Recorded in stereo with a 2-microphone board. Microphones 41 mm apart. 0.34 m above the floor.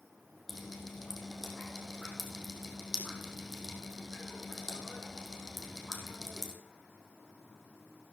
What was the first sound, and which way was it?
Dripping, centre (ahead or behind).